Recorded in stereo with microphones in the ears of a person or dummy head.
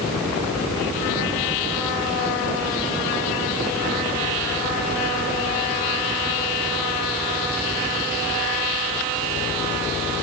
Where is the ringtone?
No ringtone in this recording.